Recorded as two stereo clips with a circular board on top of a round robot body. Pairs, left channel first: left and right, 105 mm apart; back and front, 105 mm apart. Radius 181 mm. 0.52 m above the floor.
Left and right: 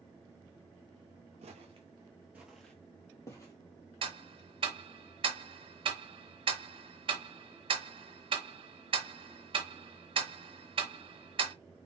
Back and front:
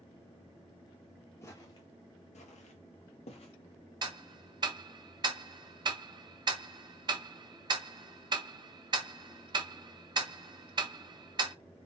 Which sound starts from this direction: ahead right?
Ticking, at 4.0 s.